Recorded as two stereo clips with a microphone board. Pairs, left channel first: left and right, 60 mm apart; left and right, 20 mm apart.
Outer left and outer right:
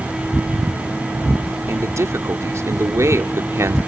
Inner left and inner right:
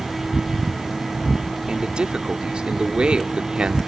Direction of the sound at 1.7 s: 55° right (ahead or behind).